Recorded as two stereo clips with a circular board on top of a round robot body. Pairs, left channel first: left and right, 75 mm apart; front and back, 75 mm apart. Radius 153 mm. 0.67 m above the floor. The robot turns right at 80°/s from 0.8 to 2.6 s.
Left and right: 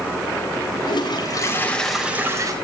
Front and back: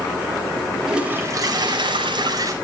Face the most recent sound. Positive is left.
turn(degrees=-125)